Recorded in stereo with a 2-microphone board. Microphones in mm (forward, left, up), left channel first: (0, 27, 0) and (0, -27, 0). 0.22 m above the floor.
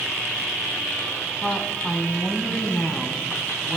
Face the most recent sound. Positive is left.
turn(degrees=20)  # may be behind; listen again after turning